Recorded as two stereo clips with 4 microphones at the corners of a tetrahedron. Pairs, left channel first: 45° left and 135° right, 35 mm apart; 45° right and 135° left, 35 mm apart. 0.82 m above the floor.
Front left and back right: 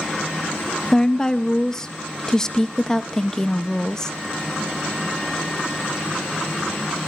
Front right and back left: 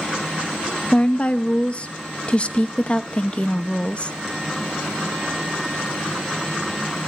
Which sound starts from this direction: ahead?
A woman speaking, at 0.9 s.